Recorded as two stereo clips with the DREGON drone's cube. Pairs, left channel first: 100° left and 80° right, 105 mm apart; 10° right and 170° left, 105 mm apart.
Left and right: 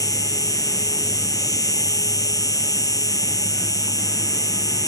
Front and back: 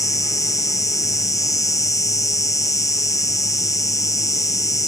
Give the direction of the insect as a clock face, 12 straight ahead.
10 o'clock.